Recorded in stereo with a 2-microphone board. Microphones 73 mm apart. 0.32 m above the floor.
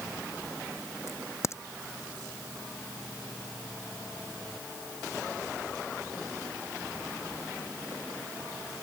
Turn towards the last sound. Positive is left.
turn(degrees=40)  # may be behind; listen again after turning